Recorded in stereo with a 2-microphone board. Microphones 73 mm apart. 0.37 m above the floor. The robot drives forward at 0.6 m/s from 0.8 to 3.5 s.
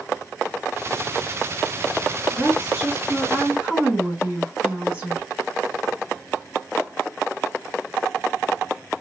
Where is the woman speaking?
10° right (ahead or behind), 3.5 m; by 5.3 s 15° right (ahead or behind), 3 m.